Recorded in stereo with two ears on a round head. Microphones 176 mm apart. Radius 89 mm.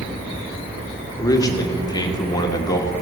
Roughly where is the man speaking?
Centre.